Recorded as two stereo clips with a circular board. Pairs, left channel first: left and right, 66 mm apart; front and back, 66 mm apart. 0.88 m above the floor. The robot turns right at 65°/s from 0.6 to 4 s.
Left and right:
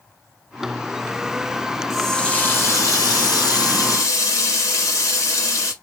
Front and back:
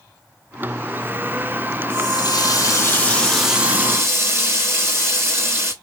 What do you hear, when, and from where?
1.9 s a running tap: 5° right, 0.8 m; by 5.7 s 130° left, 0.8 m